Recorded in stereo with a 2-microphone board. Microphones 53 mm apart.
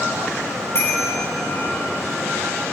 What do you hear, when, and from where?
0.8 s a bicycle bell: 55° left (ahead or behind), 10 m